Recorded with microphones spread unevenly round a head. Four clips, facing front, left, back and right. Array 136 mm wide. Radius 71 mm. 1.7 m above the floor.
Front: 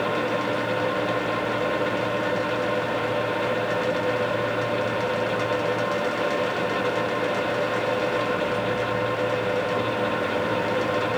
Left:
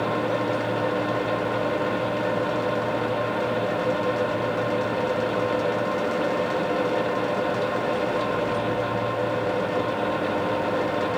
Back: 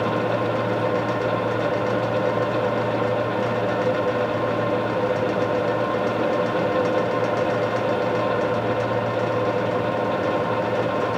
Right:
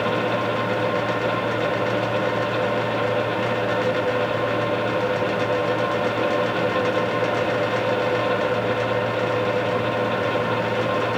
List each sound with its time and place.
Only background noise.